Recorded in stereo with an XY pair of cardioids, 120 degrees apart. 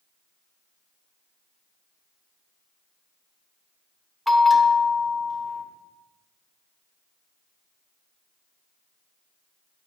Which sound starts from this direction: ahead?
A bell, at 4.3 s.